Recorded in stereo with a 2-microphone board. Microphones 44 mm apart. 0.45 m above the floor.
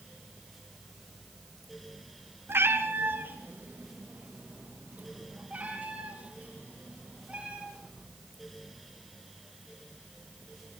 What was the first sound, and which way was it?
A cat meowing, 70° right (ahead or behind).